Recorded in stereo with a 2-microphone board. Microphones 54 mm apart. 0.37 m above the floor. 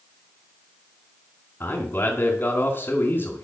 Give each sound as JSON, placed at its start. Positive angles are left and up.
{"t": 1.6, "sound": "a man speaking", "side_deg": 40, "distance_m": 2.5}